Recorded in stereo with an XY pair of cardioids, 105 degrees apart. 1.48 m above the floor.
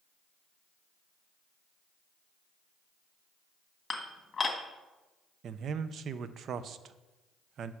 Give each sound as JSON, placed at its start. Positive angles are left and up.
{"t": 3.9, "sound": "dishes clattering", "azimuth_deg": 35, "distance_m": 1.5}
{"t": 5.4, "sound": "a man speaking", "azimuth_deg": -60, "distance_m": 0.6}